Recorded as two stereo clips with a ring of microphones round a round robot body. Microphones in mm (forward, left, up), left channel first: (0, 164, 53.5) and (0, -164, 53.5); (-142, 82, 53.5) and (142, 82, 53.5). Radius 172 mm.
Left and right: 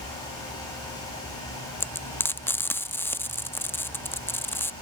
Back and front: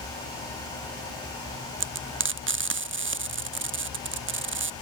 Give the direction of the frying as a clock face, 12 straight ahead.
12 o'clock.